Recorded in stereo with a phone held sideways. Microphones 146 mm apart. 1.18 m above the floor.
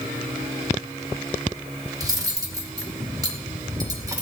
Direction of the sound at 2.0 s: 25° right (ahead or behind).